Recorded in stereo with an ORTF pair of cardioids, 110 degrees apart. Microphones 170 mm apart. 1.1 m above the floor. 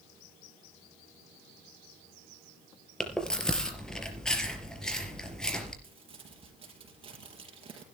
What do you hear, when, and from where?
3.0 s chewing: 5° left, 4 m
5.8 s crumpling: 35° right, 6 m